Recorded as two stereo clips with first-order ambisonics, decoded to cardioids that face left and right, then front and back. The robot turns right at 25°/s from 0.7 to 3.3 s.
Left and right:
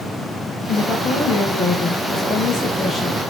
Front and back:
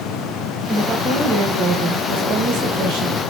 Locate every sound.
0.7 s a woman speaking: 120° left, 1.2 m; by 3.2 s straight behind, 1.2 m